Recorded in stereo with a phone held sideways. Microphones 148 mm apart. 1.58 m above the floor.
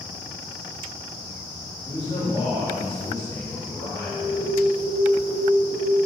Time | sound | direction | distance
1.9 | a man speaking | 35° left (ahead or behind) | 3.5 m
4.1 | an alarm | 10° right (ahead or behind) | 2.0 m